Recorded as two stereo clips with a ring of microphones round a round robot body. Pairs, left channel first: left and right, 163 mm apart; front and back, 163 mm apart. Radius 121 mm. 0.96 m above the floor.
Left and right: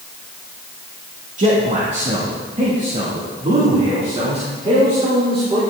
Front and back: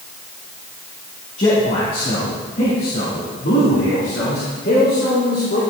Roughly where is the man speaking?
Ahead right.